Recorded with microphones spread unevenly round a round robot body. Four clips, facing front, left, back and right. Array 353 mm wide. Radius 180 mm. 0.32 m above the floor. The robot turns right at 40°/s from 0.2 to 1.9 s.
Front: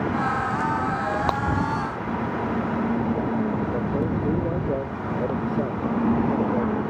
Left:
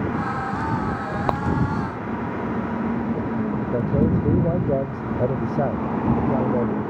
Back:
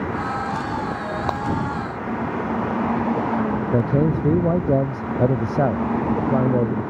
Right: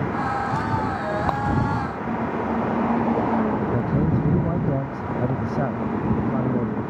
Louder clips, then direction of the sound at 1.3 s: Left 3 dB, back 1 dB; 95° left.